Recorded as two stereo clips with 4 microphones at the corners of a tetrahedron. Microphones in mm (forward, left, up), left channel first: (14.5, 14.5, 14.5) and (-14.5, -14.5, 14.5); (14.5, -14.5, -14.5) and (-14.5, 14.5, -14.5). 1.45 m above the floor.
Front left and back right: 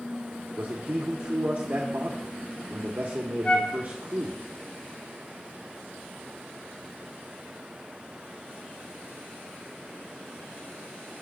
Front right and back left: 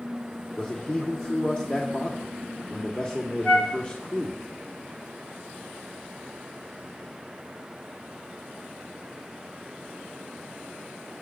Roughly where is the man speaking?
Right.